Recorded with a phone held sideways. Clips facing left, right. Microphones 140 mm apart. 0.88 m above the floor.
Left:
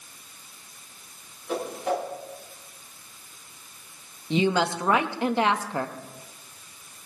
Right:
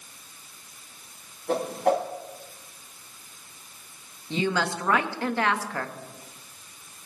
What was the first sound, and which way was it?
A whoosh, 65° right (ahead or behind).